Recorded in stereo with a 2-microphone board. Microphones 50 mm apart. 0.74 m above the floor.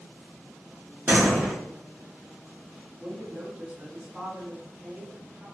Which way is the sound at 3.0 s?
10° right (ahead or behind).